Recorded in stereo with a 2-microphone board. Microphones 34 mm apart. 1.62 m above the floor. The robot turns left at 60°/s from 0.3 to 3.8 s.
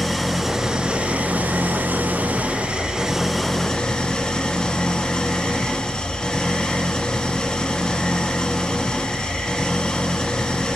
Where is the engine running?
Straight ahead, 1.5 m; by 10.8 s 150° left, 1.5 m.